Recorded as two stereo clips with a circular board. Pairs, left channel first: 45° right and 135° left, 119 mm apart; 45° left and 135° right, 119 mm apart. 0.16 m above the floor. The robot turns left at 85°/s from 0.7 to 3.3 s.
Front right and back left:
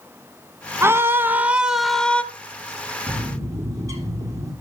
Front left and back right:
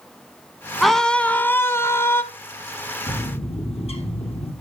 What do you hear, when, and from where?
0.8 s a scream: 135° left, 1.0 m; by 2.2 s 15° left, 1.0 m
3.1 s a bird: 95° left, 3.5 m; by 4.5 s 75° left, 3.5 m